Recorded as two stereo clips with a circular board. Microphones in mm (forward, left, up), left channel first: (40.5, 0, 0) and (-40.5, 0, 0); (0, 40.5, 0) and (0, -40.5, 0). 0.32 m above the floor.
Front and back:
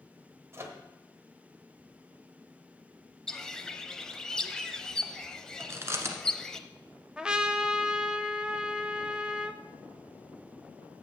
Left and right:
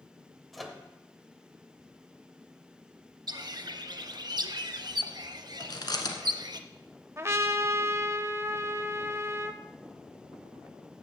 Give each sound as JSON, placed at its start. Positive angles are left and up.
{"t": 0.5, "sound": "a microwave", "azimuth_deg": 180, "distance_m": 1.1}
{"t": 3.3, "sound": "a bird", "azimuth_deg": -80, "distance_m": 0.6}
{"t": 5.6, "sound": "chewing", "azimuth_deg": 125, "distance_m": 1.1}
{"t": 7.2, "sound": "a trumpet", "azimuth_deg": -110, "distance_m": 0.5}